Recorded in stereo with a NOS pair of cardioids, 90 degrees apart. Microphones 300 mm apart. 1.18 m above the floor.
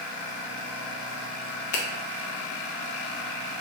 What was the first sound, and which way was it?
A finger snap, 70° left.